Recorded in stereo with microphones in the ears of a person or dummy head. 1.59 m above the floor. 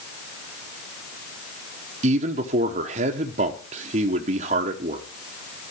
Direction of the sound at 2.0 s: 35° right (ahead or behind).